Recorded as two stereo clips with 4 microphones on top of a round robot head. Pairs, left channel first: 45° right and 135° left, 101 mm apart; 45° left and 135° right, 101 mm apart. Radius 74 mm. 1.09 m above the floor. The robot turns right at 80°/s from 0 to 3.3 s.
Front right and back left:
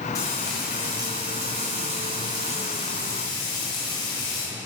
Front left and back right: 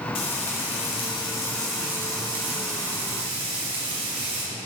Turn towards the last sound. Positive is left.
turn(degrees=-95)